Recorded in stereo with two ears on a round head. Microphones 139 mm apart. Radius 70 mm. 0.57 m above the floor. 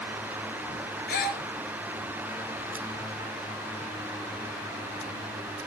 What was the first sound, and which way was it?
A gasp, 70° left (ahead or behind).